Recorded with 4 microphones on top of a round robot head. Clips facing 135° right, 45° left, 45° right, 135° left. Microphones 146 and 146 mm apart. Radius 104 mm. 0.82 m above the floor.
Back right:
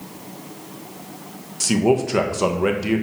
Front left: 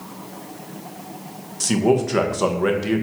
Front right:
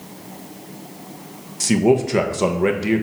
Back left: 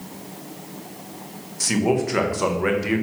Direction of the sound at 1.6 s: 55° right.